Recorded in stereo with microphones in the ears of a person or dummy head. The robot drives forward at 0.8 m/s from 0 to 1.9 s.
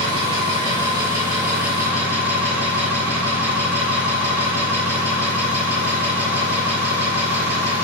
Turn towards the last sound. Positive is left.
turn(degrees=-20)  # may be behind; listen again after turning